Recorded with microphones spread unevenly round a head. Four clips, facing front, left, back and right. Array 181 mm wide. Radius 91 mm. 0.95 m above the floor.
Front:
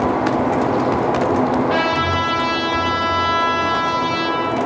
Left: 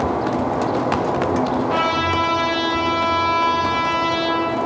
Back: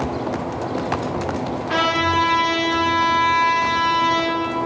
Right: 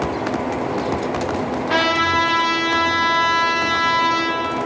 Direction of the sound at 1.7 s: 110° right.